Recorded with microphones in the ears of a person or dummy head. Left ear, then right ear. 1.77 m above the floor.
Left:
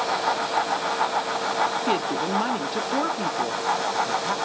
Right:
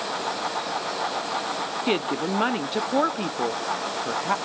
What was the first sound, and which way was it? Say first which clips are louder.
A woman speaking: left 1 dB; 25° right (ahead or behind).